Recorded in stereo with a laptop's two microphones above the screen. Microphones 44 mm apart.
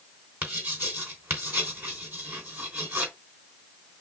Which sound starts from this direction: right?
Writing, at 0.4 s.